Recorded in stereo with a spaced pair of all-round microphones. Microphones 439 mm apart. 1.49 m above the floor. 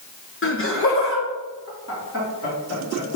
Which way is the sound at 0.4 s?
30° left (ahead or behind).